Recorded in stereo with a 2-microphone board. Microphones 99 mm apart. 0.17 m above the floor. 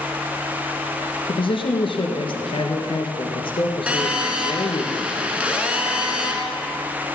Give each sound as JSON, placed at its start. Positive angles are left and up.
{"t": 1.3, "sound": "a man speaking", "side_deg": 60, "distance_m": 2.5}
{"t": 3.9, "sound": "a phone buzzing", "side_deg": -15, "distance_m": 1.6}